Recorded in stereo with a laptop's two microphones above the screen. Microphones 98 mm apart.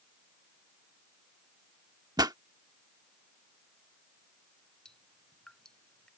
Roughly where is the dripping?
Centre.